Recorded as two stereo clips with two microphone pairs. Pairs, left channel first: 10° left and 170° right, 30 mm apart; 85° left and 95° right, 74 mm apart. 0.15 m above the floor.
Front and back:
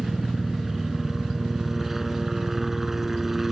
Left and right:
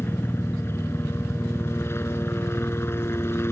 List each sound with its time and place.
0.0 s a helicopter: 115° left